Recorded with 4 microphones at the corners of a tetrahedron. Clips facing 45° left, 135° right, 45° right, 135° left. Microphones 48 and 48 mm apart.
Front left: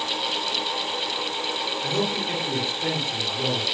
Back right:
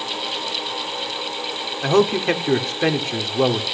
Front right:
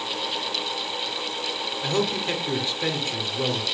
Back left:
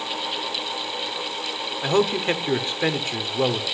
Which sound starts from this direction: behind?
A man speaking, at 1.8 s.